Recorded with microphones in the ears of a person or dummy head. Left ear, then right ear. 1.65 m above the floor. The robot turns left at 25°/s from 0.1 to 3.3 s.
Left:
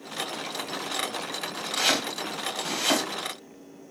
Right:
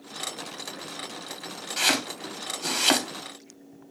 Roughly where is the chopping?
Centre.